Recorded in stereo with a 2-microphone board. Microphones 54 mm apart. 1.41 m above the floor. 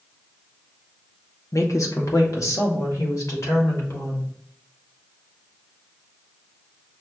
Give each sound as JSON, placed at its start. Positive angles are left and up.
{"t": 1.5, "sound": "a woman speaking", "side_deg": 70, "distance_m": 1.0}